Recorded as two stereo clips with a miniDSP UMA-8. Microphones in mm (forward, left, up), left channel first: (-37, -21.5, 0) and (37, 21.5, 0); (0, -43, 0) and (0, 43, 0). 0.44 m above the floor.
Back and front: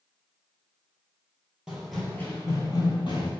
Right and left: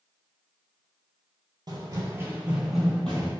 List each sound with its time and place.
1.7 s running footsteps: 105° left, 0.7 m; by 3.3 s 165° right, 1.0 m